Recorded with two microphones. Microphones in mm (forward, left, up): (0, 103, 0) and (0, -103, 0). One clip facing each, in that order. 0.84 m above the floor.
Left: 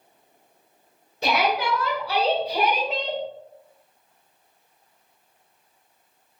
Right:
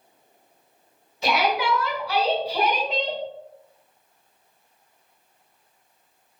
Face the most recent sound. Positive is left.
turn(degrees=-10)  # may be behind; listen again after turning